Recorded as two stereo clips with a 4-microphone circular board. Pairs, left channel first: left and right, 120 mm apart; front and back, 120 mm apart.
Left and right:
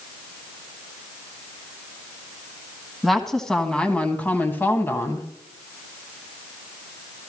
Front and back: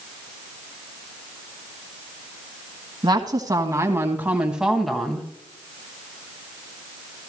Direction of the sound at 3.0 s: Straight behind.